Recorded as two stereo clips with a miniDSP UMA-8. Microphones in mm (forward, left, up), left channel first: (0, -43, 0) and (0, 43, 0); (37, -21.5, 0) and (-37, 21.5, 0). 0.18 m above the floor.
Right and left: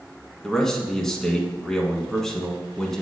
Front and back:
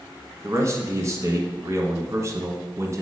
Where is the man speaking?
175° right, 1.5 m.